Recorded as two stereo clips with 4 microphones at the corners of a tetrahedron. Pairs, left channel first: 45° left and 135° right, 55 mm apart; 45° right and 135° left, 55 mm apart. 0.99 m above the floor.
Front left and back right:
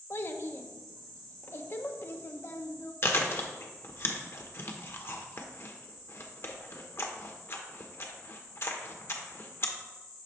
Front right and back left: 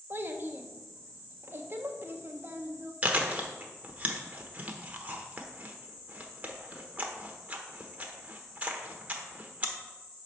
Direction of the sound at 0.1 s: 90° left.